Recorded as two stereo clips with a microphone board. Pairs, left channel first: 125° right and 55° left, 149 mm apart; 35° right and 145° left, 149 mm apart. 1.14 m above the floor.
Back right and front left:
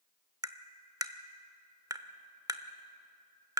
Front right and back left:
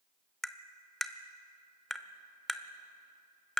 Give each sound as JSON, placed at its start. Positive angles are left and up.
{"t": 0.4, "sound": "tapping", "azimuth_deg": 50, "distance_m": 0.8}